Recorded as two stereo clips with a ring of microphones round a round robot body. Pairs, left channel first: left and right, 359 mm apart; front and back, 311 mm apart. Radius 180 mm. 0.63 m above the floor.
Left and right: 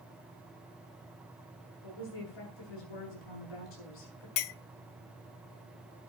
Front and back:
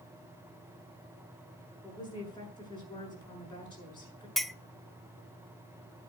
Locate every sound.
1.8 s a woman speaking: 75° left, 8 m
4.4 s a clink: 90° left, 0.7 m